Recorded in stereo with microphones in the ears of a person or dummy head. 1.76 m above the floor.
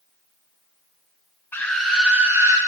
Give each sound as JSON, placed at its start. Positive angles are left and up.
{"t": 1.5, "sound": "a scream", "side_deg": 10, "distance_m": 1.2}